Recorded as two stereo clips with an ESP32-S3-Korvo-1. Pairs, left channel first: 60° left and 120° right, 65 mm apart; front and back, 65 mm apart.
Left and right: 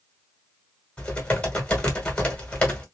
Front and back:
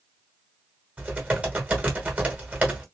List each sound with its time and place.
1.0 s typing on a keyboard: 125° left, 1.8 m